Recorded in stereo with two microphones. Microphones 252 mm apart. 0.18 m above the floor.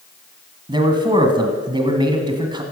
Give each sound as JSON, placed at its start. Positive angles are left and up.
{"t": 0.7, "sound": "a man speaking", "side_deg": -20, "distance_m": 1.4}